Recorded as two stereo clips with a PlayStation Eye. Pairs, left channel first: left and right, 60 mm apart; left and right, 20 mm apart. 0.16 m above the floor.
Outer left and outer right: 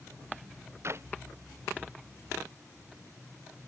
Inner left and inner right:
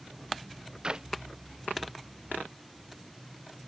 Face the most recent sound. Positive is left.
turn(degrees=-45)  # may be behind; listen again after turning